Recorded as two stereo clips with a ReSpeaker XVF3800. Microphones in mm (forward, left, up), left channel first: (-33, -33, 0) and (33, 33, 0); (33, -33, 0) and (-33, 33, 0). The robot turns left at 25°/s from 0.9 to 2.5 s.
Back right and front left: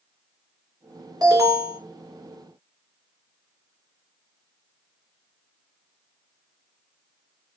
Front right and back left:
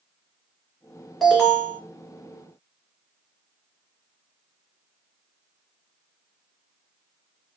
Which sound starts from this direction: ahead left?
An alarm, at 1.2 s.